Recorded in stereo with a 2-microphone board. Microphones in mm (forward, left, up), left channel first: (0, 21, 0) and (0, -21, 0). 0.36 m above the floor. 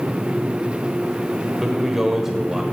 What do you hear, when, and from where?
1.6 s a man speaking: 10° right (ahead or behind), 1.0 m